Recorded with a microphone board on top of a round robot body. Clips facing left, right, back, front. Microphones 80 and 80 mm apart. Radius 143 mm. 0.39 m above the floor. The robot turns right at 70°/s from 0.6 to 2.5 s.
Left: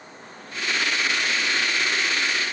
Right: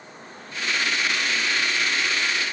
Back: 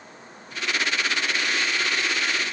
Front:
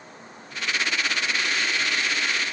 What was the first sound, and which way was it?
Only background noise.